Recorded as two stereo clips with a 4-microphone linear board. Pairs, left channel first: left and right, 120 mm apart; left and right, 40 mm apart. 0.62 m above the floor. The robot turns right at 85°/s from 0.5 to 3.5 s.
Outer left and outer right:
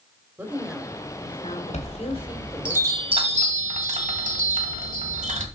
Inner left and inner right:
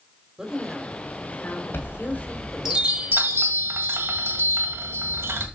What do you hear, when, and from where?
0.4 s a woman speaking: 15° right, 2 m; by 2.7 s 175° left, 2 m
1.7 s a chime: 115° left, 1.8 m; by 5.5 s 100° right, 1.8 m